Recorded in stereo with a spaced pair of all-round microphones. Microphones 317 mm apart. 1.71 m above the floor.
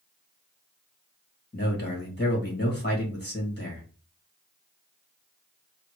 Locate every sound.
1.5 s a man speaking: 30° left (ahead or behind), 2 m